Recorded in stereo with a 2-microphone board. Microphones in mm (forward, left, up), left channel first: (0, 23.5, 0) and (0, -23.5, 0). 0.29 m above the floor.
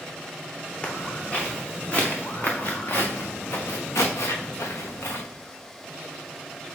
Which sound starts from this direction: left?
Footsteps, at 0.8 s.